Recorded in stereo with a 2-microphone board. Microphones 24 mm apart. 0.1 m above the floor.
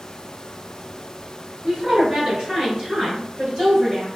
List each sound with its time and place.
1.6 s a woman speaking: 30° right (ahead or behind), 1.6 m; by 4.1 s 25° right (ahead or behind), 1.8 m